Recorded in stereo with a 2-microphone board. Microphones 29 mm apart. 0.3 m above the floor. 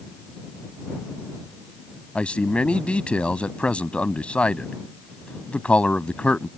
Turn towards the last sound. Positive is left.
turn(degrees=50)  # may be behind; listen again after turning